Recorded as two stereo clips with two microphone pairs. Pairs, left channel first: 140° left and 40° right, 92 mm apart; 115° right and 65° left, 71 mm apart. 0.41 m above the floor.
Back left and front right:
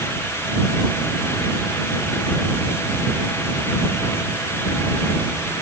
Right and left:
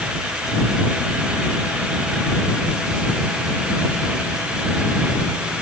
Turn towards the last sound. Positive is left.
No sound to turn to.